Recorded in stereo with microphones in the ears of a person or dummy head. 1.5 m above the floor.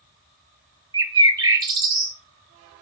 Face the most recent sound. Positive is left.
turn(degrees=-20)  # may be behind; listen again after turning